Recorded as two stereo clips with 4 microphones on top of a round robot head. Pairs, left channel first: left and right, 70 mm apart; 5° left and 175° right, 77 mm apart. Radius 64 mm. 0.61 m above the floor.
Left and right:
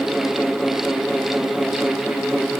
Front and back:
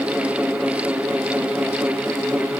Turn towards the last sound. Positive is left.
No sound to turn to.